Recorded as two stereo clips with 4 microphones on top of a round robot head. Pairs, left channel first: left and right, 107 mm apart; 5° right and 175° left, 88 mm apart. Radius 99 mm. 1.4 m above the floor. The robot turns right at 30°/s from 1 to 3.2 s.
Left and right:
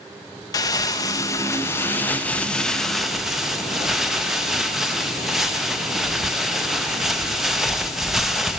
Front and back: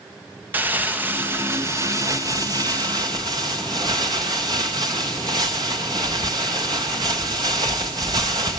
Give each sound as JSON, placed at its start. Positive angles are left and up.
{"t": 0.5, "sound": "crumpling", "azimuth_deg": 120, "distance_m": 0.5}